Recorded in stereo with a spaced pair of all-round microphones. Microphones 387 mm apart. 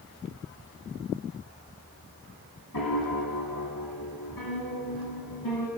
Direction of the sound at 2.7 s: 70° left (ahead or behind).